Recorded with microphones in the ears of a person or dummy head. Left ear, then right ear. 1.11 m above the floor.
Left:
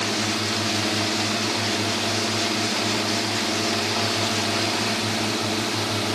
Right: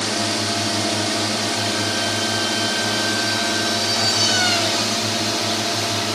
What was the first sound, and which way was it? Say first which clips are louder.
A drone: right 2 dB; 45° right (ahead or behind).